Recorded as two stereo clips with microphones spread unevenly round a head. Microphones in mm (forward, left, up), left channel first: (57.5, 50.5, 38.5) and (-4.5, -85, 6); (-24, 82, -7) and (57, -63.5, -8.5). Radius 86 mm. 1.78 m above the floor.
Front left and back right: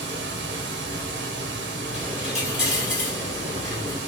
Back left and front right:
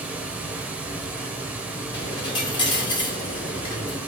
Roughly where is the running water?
Behind right.